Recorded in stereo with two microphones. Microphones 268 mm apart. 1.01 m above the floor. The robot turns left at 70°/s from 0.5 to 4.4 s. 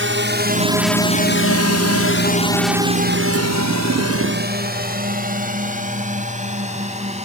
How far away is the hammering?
I don't hear hammering.